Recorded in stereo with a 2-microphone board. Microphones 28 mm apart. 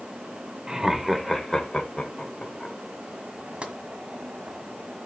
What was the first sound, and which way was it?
Laughter, 30° right (ahead or behind).